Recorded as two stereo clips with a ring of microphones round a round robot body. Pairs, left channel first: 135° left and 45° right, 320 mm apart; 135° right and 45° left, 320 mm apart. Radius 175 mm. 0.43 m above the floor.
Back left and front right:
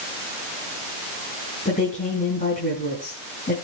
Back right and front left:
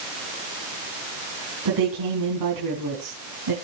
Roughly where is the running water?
No running water in this recording.